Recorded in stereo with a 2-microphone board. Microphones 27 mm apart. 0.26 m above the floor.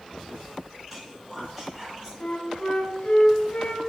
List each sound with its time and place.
0.9 s whispering: 5° right (ahead or behind), 1.6 m
2.2 s a flute: 45° left (ahead or behind), 0.6 m